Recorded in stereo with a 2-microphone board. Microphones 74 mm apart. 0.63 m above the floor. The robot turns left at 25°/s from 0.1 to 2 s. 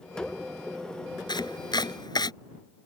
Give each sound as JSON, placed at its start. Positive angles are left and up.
{"t": 1.3, "sound": "chopping", "side_deg": 85}